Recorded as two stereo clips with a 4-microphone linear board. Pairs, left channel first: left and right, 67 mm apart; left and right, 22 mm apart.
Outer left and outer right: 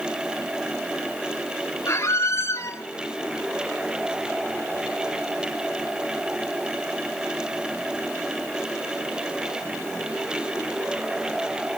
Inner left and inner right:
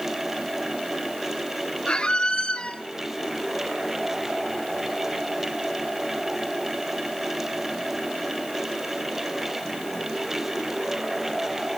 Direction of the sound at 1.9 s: 50° left (ahead or behind).